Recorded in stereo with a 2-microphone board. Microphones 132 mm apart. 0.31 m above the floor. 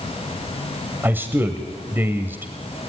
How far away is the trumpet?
I don't hear a trumpet.